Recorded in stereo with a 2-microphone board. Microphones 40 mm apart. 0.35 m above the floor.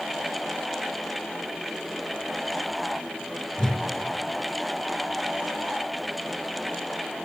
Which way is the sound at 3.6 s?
15° left (ahead or behind).